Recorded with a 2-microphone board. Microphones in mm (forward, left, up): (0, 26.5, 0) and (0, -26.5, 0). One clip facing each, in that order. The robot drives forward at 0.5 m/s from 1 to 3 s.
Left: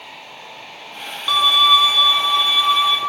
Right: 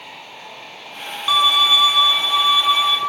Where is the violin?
5° right (ahead or behind), 0.7 m.